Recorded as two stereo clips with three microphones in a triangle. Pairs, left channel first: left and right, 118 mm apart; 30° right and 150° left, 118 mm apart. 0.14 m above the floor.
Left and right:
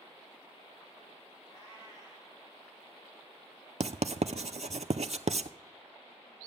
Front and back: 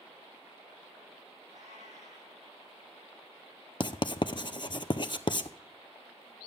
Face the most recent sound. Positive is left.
turn(degrees=-75)